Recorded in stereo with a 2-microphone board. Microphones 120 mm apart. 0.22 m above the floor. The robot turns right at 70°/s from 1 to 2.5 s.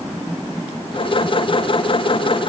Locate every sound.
Only background noise.